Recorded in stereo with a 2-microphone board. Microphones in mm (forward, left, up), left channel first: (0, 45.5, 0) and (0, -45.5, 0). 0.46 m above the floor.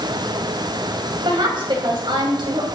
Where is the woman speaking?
60° right (ahead or behind), 3 m.